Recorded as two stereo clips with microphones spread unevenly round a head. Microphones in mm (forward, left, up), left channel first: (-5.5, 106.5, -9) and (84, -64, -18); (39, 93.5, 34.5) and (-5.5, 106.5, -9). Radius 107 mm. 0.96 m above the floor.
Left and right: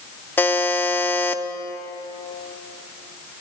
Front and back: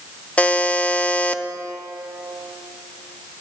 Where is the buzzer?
40° left, 0.7 m.